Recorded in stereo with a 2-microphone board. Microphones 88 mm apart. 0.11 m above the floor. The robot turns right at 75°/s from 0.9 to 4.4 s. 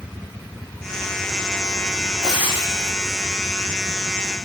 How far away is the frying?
About 6 m.